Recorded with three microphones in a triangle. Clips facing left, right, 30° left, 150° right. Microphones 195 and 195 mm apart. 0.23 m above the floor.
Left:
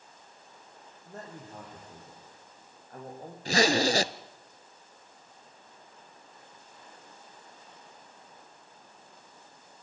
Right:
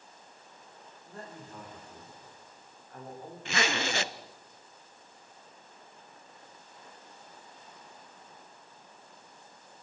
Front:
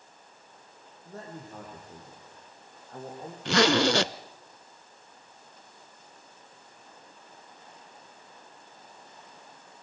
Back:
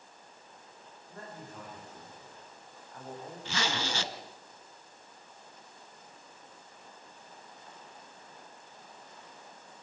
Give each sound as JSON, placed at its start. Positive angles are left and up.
{"t": 1.1, "sound": "a man speaking", "azimuth_deg": 45, "distance_m": 9.0}
{"t": 3.5, "sound": "a zipper", "azimuth_deg": 40, "distance_m": 0.6}